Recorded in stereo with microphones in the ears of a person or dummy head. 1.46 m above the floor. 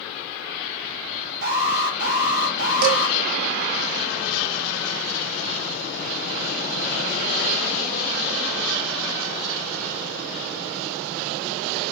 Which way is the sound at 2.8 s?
60° right (ahead or behind).